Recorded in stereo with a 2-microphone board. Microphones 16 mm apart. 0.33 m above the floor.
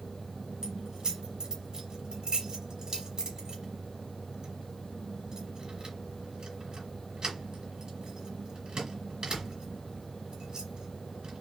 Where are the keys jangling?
60° right (ahead or behind), 2.5 m.